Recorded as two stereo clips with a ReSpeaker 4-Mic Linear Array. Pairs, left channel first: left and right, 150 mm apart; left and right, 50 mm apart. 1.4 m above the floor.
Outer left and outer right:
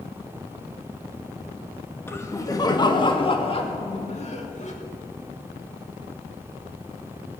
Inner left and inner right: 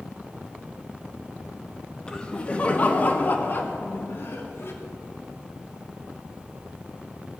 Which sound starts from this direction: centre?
Laughter, at 2.1 s.